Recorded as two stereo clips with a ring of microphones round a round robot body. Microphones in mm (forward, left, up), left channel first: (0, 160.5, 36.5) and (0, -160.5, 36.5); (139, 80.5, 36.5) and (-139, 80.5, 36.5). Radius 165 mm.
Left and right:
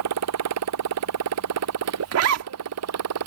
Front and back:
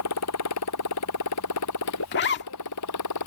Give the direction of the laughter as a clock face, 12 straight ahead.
I don't hear laughter.